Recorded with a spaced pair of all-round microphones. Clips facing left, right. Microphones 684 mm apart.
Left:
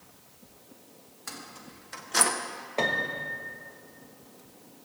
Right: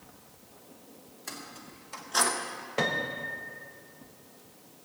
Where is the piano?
45° right (ahead or behind), 1.0 m.